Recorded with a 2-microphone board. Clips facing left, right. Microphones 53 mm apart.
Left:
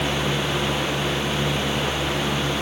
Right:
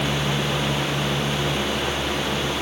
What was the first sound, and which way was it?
Only background noise.